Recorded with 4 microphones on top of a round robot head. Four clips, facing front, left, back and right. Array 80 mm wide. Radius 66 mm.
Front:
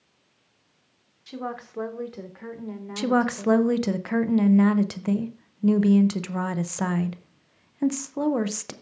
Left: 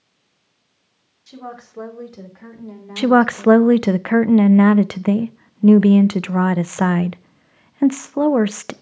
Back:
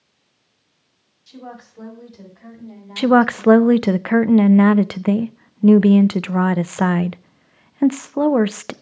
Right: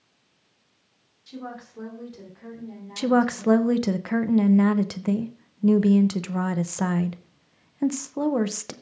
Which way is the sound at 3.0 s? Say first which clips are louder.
Left 7 dB, back 9 dB; 135° left.